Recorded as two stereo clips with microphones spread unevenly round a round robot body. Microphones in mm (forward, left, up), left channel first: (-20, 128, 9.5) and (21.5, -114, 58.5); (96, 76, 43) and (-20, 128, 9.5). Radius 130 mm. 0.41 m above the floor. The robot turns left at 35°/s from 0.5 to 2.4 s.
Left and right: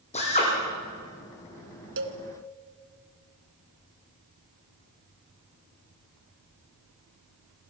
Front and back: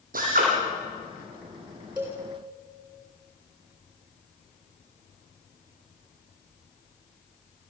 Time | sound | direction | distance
0.1 | a drill | 165° left | 8.5 m
2.0 | a cowbell | 120° right | 2 m